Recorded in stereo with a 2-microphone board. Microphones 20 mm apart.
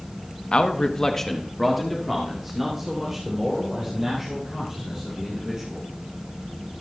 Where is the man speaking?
55° left (ahead or behind), 0.9 m; by 5.9 s 20° right (ahead or behind), 6 m.